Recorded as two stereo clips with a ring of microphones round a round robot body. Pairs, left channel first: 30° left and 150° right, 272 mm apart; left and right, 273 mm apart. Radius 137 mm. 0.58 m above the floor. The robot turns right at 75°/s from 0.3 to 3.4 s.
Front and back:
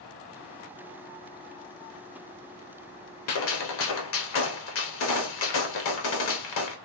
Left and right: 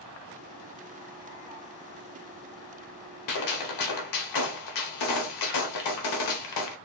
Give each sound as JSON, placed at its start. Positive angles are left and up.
{"t": 3.3, "sound": "a gunshot", "azimuth_deg": 65, "distance_m": 0.9}